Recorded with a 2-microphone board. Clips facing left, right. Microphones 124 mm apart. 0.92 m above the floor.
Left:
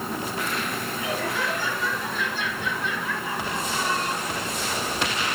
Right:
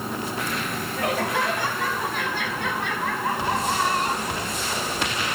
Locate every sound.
1.0 s laughter: 80° right, 7 m; by 4.5 s 65° right (ahead or behind), 5.5 m